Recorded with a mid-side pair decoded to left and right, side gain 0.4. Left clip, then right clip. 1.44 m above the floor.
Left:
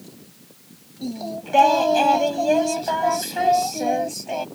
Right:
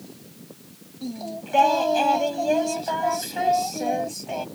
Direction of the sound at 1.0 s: 25° left.